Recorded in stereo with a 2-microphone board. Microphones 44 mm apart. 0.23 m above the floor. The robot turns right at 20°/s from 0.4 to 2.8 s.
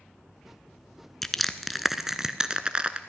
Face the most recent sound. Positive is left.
turn(degrees=-25)  # may be behind; listen again after turning